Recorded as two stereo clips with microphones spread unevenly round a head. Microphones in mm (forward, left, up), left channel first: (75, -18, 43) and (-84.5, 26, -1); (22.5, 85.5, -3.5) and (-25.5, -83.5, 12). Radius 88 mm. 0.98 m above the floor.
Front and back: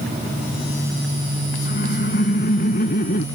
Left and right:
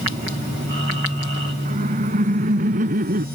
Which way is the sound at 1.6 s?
55° right.